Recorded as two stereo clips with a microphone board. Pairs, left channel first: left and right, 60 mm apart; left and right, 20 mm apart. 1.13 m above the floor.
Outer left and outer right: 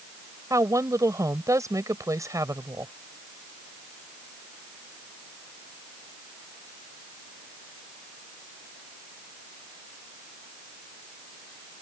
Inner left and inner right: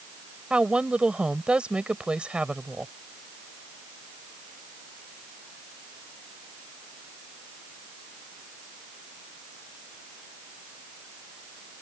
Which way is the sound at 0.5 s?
65° right (ahead or behind).